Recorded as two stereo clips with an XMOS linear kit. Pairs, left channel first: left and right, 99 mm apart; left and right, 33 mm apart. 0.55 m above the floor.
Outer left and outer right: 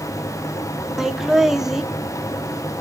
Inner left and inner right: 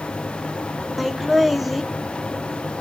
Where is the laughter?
5° right (ahead or behind), 0.6 m.